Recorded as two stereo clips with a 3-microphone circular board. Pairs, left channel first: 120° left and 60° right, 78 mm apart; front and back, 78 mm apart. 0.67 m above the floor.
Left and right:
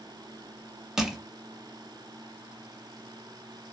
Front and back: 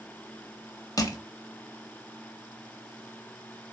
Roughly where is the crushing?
Ahead left.